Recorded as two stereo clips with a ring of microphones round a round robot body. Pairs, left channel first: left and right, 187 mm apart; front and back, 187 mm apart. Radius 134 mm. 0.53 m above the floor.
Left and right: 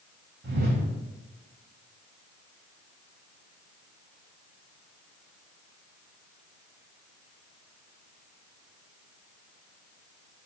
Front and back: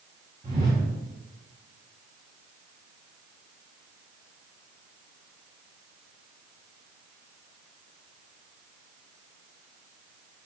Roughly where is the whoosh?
Behind right.